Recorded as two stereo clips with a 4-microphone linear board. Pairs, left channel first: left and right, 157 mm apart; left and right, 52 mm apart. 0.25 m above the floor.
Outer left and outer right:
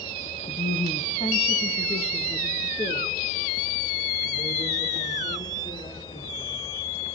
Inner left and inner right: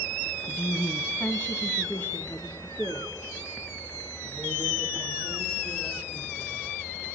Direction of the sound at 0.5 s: 25° left (ahead or behind).